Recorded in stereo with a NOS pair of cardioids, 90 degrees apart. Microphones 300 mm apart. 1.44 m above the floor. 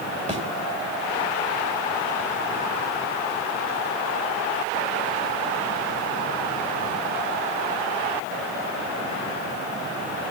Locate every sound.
0.3 s a thud: 25° right, 4 m